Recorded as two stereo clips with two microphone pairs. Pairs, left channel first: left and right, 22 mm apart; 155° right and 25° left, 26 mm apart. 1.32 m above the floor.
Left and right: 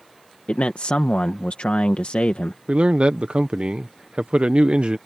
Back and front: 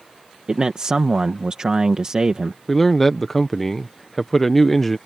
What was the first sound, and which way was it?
A man speaking, 80° left.